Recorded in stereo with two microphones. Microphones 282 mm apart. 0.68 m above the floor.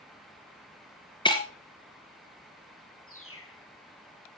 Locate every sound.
1.2 s breaking glass: 15° left (ahead or behind), 1.8 m
3.1 s a bird: 50° left (ahead or behind), 2.0 m